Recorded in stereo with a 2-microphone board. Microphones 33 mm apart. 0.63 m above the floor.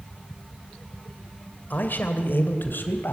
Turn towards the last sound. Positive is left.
turn(degrees=75)  # may be behind; listen again after turning